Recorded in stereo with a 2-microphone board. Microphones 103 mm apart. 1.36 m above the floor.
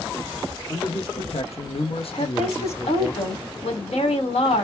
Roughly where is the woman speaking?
Left.